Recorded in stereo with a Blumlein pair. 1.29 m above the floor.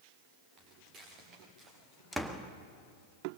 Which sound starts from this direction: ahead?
A door slam, at 2.1 s.